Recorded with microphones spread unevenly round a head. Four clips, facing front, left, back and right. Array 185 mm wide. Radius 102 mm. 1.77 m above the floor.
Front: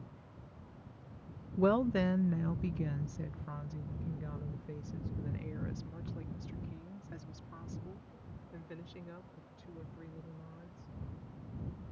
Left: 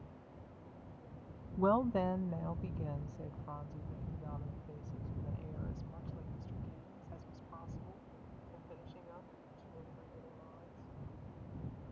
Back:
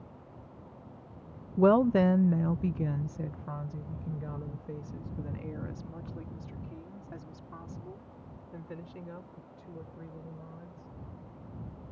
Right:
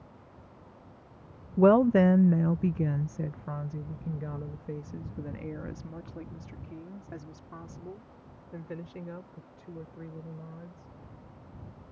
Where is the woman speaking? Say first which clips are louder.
Right 11 dB, back 7 dB; 70° right; by 10.9 s 105° right.